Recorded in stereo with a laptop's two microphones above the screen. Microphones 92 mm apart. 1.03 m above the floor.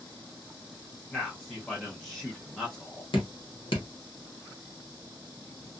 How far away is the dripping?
About 0.9 m.